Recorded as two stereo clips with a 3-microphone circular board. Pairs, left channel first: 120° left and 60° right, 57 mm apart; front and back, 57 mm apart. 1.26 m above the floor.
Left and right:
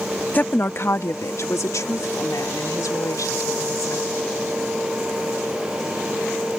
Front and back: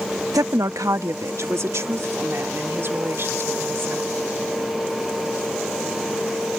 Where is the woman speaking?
Straight behind; by 4.1 s 130° left.